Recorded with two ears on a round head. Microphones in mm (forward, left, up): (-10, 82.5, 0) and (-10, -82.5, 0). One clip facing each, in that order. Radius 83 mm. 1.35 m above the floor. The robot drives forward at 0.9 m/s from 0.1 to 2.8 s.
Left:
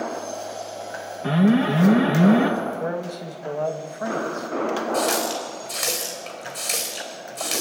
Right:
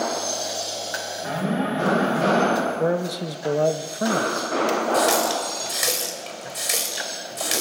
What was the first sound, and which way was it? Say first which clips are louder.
An alarm: left 7 dB; 60° left (ahead or behind).